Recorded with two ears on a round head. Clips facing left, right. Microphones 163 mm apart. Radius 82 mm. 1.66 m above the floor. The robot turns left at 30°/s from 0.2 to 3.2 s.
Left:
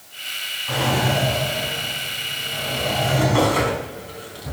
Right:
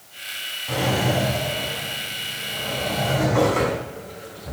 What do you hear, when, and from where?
0.7 s a drawer: 155° right, 4 m; by 4.5 s 130° left, 4 m